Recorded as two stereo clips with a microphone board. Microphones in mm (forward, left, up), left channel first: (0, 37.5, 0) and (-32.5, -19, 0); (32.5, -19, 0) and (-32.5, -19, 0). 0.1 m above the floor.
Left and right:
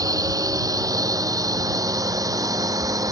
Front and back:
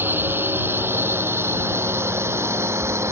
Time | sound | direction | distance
0.0 | a drone | 125° right | ?